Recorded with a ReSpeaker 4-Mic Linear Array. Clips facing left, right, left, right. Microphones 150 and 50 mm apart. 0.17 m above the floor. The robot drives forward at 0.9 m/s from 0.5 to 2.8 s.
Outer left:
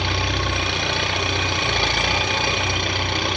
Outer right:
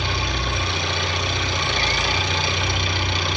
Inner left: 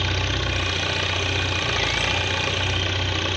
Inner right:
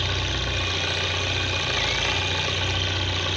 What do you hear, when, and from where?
0.0 s an engine running: 70° left (ahead or behind), 9.5 m; by 3.4 s 60° left (ahead or behind), 10 m